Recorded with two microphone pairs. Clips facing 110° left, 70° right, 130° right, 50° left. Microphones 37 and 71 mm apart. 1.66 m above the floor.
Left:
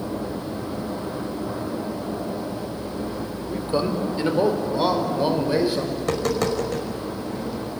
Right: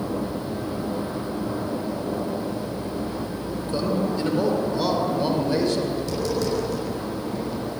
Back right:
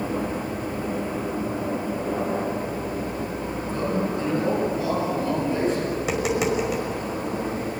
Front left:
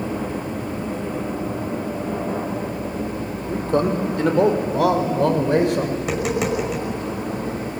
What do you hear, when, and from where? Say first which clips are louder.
3.5 s a man speaking: left 2 dB, front left 8 dB; 50° left, 4.5 m; by 5.8 s 35° left, 6 m
6.0 s tapping: left 2 dB, front left 1 dB; 140° left, 5.5 m